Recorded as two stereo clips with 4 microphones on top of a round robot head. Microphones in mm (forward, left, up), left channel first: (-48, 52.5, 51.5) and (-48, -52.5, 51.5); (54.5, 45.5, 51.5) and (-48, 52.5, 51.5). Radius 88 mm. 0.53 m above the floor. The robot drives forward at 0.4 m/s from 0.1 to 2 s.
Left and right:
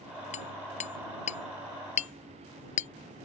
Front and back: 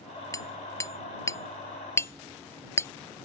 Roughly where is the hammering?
Ahead left.